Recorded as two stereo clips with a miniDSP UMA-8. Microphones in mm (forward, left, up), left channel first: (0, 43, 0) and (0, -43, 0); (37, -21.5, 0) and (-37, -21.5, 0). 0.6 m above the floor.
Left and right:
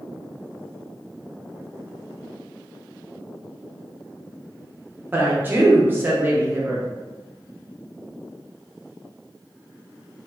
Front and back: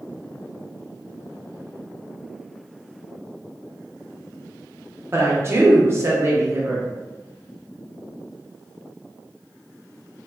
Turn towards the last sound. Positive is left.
turn(degrees=-145)